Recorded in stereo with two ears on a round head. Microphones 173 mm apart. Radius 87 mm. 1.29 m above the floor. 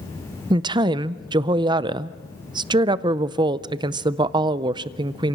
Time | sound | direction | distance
0.5 | a woman speaking | 25° right (ahead or behind) | 0.5 m